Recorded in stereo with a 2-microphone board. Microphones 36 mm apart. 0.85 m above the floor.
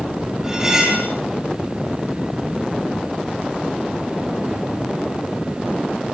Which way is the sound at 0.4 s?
10° right (ahead or behind).